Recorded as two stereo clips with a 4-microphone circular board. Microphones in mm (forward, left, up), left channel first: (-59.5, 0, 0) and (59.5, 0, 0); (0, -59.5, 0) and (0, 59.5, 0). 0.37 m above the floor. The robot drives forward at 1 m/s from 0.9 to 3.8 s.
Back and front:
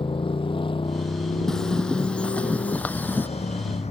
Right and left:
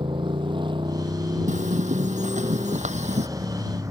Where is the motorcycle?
135° left; by 3.9 s 155° left.